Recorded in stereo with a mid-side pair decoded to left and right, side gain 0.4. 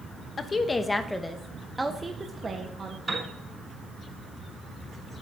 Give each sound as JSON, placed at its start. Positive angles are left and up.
{"t": 0.4, "sound": "a woman speaking", "azimuth_deg": 45, "distance_m": 1.0}
{"t": 3.1, "sound": "a piano", "azimuth_deg": -25, "distance_m": 5.5}